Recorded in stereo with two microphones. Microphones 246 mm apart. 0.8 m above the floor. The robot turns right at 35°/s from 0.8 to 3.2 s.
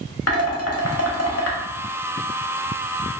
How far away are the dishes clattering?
About 0.7 m.